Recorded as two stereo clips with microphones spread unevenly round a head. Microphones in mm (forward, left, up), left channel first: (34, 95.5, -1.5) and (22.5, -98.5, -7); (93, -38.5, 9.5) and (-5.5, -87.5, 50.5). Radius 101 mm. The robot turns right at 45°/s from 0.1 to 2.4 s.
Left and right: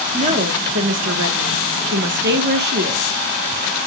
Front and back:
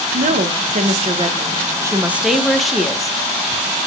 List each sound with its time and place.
0.1 s a woman speaking: 160° right, 1.2 m; by 3.2 s 55° right, 1.2 m